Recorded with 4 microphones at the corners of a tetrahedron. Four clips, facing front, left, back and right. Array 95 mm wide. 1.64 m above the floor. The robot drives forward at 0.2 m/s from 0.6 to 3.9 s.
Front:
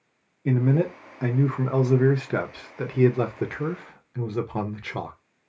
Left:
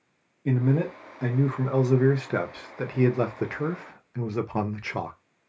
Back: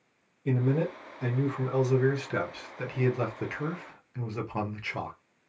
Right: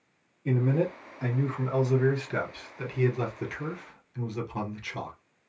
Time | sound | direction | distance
0.5 | a man speaking | 30° left | 1.1 m